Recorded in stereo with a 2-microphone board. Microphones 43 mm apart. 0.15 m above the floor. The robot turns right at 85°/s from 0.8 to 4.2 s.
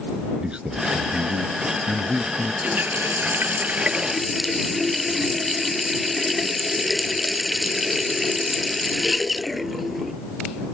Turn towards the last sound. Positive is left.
turn(degrees=-5)